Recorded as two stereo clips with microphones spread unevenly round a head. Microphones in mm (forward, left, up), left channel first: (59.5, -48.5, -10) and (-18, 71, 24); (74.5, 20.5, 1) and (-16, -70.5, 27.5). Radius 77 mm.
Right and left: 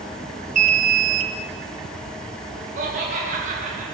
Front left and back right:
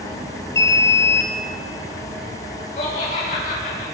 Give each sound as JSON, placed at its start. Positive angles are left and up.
{"t": 0.6, "sound": "an alarm", "azimuth_deg": 95, "distance_m": 0.9}
{"t": 2.8, "sound": "laughter", "azimuth_deg": 85, "distance_m": 1.8}